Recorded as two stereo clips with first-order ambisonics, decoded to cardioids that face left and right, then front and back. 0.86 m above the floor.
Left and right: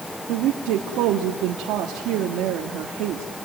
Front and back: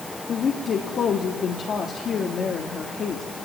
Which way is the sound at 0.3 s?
60° right.